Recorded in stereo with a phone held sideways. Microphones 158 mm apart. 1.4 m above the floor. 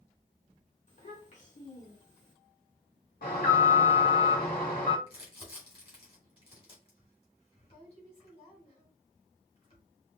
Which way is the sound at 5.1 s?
35° left (ahead or behind).